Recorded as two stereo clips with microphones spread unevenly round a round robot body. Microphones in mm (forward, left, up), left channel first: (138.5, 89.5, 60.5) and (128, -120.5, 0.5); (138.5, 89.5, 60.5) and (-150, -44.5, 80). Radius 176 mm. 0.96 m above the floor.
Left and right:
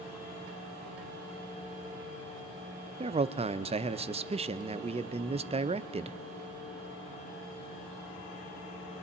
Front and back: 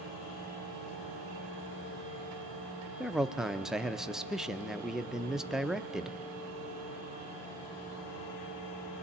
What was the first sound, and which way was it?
A man speaking, 65° right.